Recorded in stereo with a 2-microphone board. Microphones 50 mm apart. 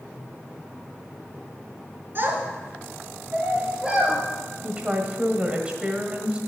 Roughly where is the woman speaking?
Right.